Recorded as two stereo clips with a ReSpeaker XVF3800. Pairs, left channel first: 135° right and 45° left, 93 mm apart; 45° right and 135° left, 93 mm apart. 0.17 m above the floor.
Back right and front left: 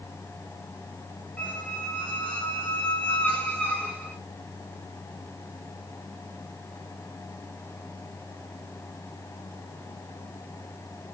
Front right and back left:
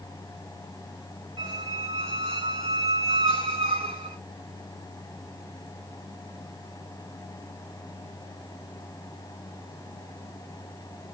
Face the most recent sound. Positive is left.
turn(degrees=145)